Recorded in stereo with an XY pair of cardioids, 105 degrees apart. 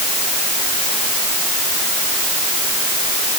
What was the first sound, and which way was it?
Only background noise.